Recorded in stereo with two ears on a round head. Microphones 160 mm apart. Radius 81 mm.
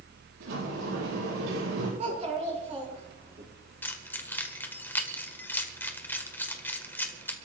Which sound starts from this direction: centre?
Keys jangling, at 3.8 s.